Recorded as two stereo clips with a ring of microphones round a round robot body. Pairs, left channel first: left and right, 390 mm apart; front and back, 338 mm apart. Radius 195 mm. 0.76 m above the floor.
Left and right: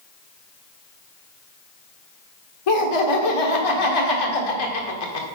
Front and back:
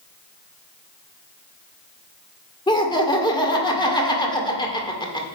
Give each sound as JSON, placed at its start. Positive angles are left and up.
{"t": 2.7, "sound": "laughter", "azimuth_deg": 75, "distance_m": 1.8}